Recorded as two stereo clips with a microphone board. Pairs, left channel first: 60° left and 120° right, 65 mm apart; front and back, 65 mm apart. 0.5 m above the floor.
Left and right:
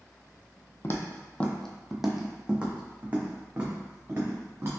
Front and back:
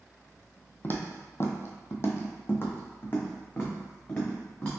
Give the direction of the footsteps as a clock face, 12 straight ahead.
11 o'clock.